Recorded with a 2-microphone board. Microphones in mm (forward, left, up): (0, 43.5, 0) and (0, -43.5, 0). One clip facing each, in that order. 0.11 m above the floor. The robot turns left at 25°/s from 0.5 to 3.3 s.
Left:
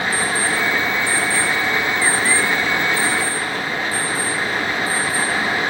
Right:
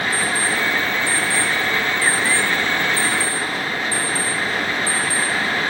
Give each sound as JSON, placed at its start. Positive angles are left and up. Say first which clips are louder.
{"t": 0.1, "sound": "an alarm clock", "louder": "left 1 dB", "side_deg": -75, "distance_m": 5.5}